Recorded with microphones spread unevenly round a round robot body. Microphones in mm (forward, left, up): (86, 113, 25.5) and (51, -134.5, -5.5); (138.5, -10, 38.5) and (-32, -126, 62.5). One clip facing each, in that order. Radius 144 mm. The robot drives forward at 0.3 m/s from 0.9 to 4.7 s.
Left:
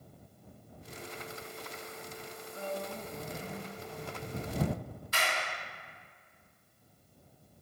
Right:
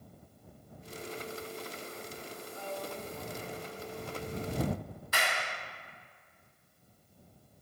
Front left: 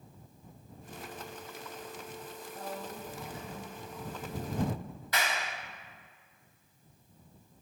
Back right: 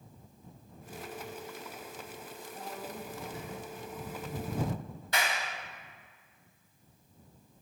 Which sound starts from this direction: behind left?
A woman speaking, at 2.5 s.